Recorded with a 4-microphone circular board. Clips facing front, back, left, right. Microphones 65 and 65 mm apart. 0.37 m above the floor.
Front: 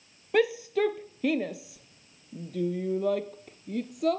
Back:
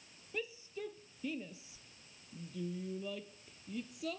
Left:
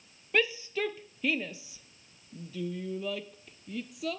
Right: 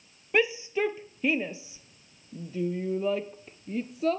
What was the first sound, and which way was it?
A shout, 20° right.